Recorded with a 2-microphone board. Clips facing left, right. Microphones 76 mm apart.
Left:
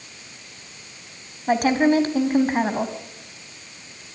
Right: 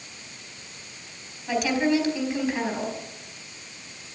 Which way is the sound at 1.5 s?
45° left (ahead or behind).